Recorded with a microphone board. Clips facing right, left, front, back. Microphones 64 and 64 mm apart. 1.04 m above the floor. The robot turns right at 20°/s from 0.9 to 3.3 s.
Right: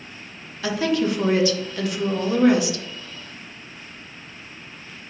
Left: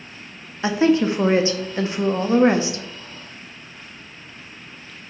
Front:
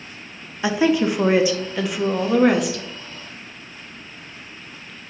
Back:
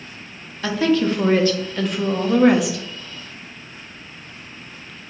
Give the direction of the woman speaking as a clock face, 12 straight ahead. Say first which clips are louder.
Left 4 dB, even; 10 o'clock.